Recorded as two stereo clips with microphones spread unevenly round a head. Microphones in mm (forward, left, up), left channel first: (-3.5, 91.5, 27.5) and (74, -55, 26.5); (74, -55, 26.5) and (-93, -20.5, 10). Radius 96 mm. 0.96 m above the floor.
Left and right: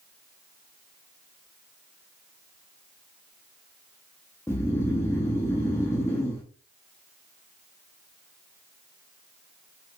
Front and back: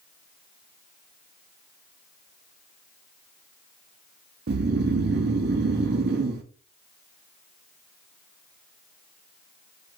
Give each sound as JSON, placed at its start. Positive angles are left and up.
{"t": 4.5, "sound": "snoring", "azimuth_deg": -165, "distance_m": 0.6}